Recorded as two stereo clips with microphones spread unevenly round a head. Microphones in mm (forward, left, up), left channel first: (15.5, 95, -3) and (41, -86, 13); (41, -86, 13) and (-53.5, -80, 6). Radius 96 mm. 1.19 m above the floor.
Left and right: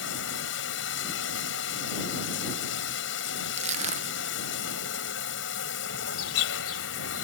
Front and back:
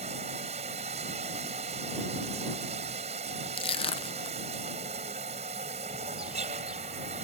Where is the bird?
90° left.